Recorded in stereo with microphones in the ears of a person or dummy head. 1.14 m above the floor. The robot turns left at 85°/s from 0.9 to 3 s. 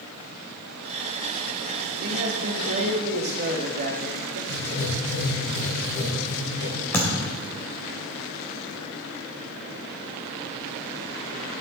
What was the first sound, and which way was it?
A man speaking, 50° right.